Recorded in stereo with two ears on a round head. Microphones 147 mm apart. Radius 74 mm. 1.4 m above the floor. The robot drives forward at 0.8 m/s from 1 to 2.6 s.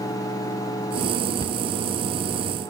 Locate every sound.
1.4 s a cupboard door: 25° left (ahead or behind); by 1.6 s 30° left (ahead or behind)